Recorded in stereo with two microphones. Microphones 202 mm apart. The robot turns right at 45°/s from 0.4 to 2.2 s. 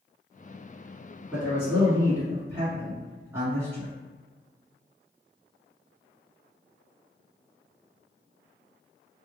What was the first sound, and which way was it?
A man speaking, centre (ahead or behind).